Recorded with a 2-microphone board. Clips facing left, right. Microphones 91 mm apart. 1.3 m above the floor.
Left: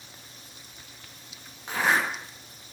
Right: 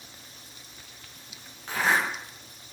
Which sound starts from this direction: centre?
A zipper, at 1.7 s.